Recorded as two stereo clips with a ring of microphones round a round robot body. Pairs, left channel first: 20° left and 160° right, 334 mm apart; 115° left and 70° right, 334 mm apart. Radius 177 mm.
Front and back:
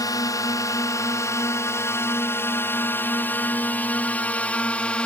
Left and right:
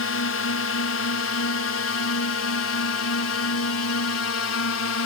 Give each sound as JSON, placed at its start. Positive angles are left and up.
{"t": 0.0, "sound": "a drone", "azimuth_deg": 95}